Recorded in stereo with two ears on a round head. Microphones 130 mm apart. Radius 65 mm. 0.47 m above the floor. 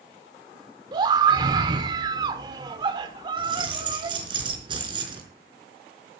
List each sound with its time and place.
0.9 s a scream: 30° right (ahead or behind), 1.6 m
3.4 s keys jangling: 35° right (ahead or behind), 4 m